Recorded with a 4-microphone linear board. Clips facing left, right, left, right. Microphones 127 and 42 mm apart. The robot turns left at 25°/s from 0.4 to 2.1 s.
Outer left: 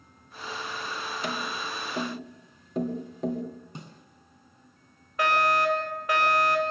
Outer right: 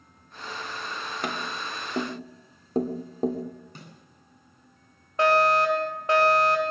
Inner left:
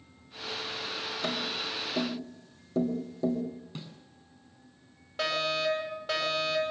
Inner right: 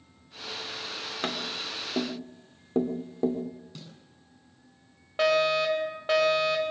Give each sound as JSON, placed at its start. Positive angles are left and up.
{"t": 1.2, "sound": "tapping", "side_deg": -55, "distance_m": 3.0}
{"t": 3.8, "sound": "a snare drum", "side_deg": 20, "distance_m": 6.5}
{"t": 5.2, "sound": "a fire alarm", "side_deg": -30, "distance_m": 7.0}